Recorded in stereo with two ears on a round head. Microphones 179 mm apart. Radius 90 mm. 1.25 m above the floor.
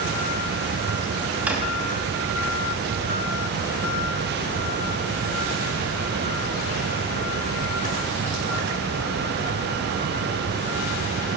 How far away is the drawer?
About 0.9 m.